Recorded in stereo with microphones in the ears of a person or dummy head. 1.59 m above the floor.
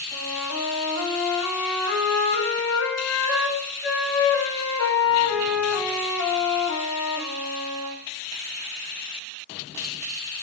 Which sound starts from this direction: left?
A flute, at 0.1 s.